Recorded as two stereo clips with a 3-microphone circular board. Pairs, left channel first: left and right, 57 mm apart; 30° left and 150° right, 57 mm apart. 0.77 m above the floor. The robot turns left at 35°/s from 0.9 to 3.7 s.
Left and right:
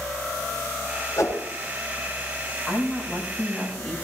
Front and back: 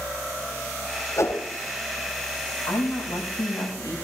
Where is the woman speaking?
40° left, 5 m; by 4.0 s straight ahead, 5 m.